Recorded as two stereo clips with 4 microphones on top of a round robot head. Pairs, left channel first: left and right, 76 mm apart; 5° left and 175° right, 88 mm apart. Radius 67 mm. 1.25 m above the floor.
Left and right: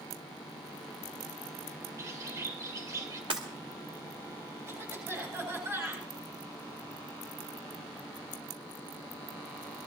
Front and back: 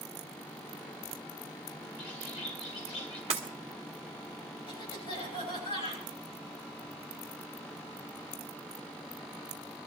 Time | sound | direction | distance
2.0 | a bird | 40° right | 2.5 m
3.3 | breaking glass | 135° right | 2.0 m
4.7 | a cough | 35° right | 7.5 m